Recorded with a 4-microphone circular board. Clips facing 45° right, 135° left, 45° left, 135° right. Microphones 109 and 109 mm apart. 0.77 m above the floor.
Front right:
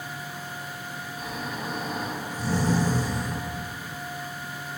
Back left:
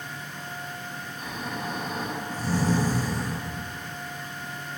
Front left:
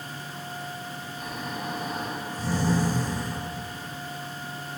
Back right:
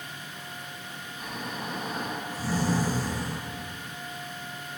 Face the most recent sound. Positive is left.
turn(degrees=-50)